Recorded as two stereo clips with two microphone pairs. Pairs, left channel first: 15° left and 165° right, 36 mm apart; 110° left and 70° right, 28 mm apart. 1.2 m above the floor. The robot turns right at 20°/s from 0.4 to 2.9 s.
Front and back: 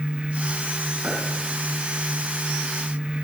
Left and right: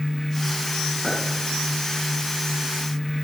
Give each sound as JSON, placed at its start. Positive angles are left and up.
{"t": 1.0, "sound": "a clink", "azimuth_deg": -175, "distance_m": 9.0}